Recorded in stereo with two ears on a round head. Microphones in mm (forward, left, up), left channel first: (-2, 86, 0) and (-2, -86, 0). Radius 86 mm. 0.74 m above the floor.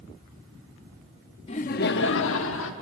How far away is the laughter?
About 0.8 m.